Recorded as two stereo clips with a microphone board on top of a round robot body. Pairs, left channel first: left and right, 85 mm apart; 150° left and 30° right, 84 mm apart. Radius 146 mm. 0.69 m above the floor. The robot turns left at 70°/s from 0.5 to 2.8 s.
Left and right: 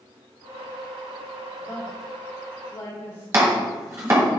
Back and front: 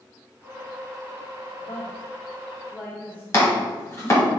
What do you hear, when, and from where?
1.6 s a woman speaking: 175° right, 1.8 m; by 3.2 s 100° left, 1.8 m
3.3 s chopping: 150° right, 1.3 m